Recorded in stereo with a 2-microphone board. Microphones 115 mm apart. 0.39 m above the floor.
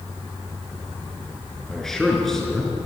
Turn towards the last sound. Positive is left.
turn(degrees=5)  # may be behind; listen again after turning